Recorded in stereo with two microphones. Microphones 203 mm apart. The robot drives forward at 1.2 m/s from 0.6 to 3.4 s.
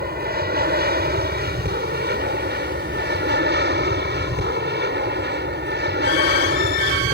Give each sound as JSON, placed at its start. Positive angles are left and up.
{"t": 0.0, "sound": "an aircraft", "side_deg": -50}